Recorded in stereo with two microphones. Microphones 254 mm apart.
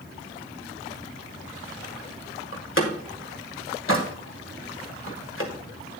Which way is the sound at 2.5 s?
55° left (ahead or behind).